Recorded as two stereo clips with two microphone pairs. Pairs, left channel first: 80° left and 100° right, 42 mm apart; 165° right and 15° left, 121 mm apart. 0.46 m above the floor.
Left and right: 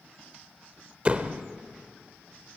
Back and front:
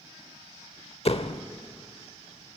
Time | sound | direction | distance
1.1 | a door slam | 150° right | 0.9 m